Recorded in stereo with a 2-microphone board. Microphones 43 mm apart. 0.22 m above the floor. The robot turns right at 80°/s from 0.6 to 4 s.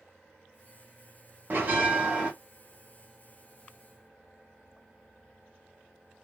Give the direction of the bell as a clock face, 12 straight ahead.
4 o'clock.